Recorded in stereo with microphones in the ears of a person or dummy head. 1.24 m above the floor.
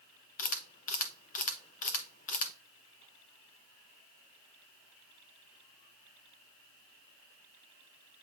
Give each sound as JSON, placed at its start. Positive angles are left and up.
{"t": 0.4, "sound": "a camera shutter", "side_deg": 45, "distance_m": 0.7}